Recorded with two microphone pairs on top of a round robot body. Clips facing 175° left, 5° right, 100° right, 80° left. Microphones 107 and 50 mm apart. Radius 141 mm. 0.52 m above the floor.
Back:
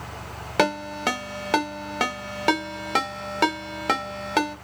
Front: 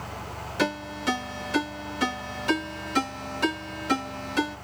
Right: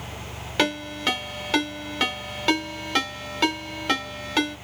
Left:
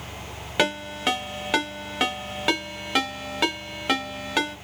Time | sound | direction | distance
0.6 | a ringtone | 160° left | 1.6 m